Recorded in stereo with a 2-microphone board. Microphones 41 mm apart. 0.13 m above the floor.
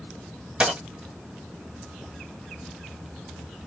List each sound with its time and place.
0.6 s a dropped coin: 25° right (ahead or behind), 0.9 m